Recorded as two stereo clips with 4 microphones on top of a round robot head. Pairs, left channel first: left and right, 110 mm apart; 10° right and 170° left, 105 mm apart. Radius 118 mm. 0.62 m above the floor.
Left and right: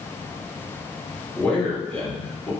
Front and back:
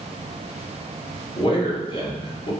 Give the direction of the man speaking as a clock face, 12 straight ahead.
12 o'clock.